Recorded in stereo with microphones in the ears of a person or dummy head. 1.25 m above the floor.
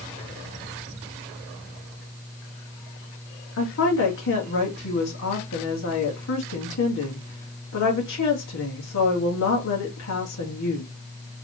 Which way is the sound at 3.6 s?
65° left (ahead or behind).